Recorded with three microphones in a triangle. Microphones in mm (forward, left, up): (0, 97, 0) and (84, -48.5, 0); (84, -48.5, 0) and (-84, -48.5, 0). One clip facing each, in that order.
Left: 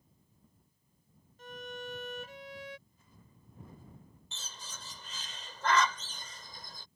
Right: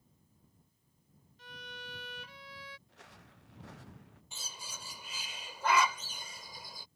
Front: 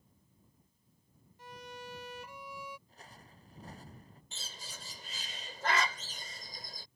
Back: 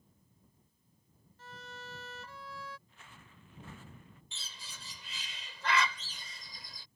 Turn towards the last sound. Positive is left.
turn(degrees=15)